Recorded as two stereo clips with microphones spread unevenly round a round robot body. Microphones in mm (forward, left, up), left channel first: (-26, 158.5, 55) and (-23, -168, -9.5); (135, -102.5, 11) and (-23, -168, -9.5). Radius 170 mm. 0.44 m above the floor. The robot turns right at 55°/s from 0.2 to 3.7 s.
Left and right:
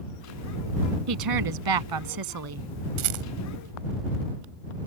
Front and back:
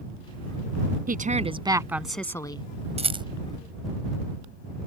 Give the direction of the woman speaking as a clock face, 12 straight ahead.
4 o'clock.